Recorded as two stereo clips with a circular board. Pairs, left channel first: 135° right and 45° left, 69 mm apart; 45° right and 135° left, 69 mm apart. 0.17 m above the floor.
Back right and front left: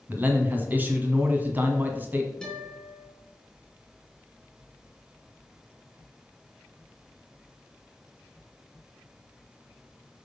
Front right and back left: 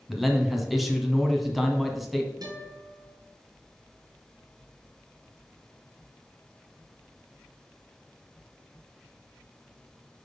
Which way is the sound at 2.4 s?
145° left.